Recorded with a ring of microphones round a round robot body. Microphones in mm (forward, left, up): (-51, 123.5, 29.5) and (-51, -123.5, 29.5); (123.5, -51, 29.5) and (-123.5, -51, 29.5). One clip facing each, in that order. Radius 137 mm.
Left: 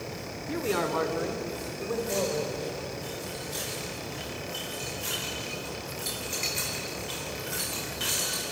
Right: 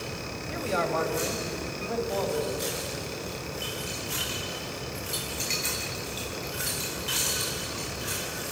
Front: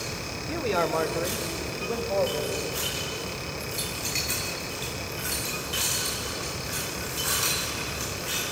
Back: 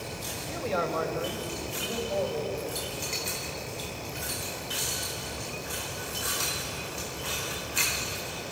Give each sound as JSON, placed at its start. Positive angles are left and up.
{"t": 0.5, "sound": "a man speaking", "azimuth_deg": 50, "distance_m": 2.5}